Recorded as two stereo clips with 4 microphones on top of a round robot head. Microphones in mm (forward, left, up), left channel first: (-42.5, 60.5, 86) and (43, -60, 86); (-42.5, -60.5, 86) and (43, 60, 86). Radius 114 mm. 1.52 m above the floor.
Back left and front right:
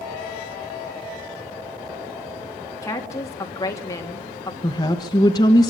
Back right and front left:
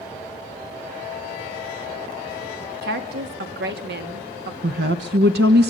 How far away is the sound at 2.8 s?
About 2.5 m.